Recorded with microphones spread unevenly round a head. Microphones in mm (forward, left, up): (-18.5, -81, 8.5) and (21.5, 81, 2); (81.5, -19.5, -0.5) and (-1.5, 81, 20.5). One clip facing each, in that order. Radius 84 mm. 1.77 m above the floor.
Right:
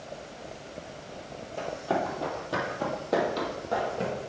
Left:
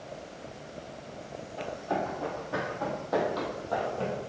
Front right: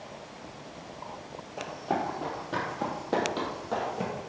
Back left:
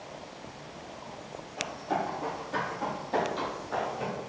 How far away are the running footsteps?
About 3.5 m.